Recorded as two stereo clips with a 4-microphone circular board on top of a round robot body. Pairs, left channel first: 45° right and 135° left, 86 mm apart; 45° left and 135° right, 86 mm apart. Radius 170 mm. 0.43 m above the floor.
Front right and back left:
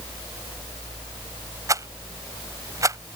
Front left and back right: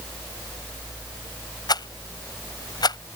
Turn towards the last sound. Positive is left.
turn(degrees=85)